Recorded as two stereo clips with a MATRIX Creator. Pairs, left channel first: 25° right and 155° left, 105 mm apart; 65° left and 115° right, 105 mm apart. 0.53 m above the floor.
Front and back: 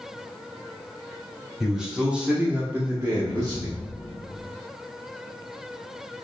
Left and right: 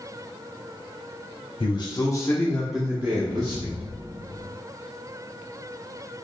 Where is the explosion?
95° right, 1.6 m.